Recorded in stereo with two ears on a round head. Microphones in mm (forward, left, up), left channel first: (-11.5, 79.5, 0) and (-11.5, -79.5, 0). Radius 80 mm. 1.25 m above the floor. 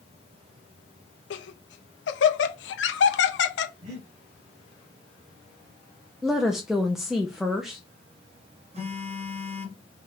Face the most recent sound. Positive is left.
turn(degrees=-40)  # may be behind; listen again after turning